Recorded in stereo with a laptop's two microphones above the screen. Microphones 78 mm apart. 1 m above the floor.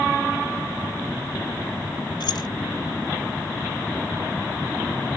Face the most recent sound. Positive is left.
turn(degrees=70)  # may be behind; listen again after turning